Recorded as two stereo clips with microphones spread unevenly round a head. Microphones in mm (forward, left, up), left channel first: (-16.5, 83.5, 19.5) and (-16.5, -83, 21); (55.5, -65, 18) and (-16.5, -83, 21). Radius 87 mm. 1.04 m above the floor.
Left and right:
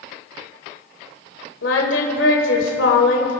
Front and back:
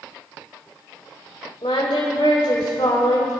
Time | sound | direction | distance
1.6 | singing | 70° left | 2.0 m